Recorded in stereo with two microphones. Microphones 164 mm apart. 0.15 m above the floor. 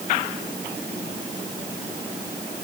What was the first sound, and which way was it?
Only background noise.